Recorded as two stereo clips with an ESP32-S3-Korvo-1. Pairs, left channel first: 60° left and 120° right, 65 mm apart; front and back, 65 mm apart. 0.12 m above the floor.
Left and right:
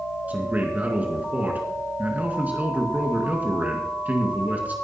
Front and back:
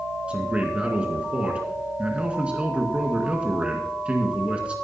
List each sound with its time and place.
0.3 s a man speaking: 135° right, 1.8 m